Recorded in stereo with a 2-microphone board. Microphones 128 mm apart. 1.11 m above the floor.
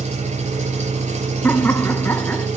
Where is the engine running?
60° right (ahead or behind), 5 m.